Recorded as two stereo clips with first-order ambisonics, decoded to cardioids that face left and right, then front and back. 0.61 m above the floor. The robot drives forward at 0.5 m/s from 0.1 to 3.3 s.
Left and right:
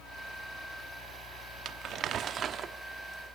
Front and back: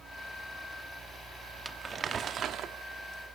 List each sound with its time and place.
1.6 s crumpling: 110° right, 0.9 m; by 3.4 s 155° right, 1.3 m